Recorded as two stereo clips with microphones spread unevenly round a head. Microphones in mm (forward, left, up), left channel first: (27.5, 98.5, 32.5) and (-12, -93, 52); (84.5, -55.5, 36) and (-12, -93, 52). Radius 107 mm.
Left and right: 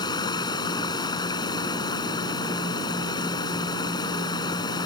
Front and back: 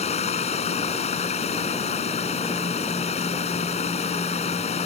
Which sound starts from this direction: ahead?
Running water, at 0.0 s.